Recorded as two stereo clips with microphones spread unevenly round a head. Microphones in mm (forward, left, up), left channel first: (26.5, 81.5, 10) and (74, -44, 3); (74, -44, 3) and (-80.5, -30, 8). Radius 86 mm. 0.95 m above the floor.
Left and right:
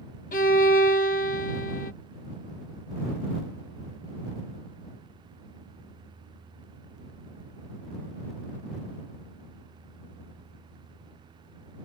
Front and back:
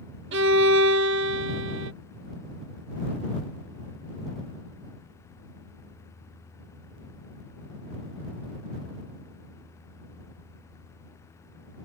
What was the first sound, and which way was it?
A violin, 160° left.